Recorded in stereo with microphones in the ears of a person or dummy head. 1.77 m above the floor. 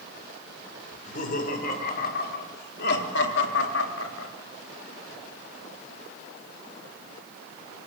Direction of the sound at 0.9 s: 50° left (ahead or behind).